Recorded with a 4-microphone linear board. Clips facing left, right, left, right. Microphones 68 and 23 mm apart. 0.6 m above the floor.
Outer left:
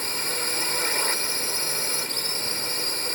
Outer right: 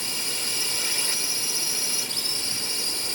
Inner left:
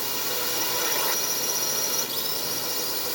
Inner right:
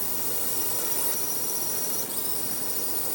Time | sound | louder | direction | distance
0.0 | a drone | outer left 4 dB, inner left 6 dB | 40° left (ahead or behind) | ?